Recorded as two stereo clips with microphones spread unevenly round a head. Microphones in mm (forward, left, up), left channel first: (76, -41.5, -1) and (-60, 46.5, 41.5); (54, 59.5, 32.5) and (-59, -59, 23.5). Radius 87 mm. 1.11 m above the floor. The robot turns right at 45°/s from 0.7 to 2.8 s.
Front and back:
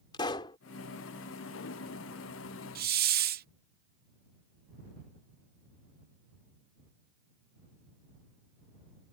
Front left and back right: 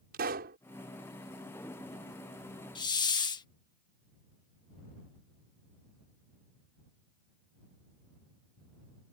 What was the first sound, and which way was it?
A pop, 100° right.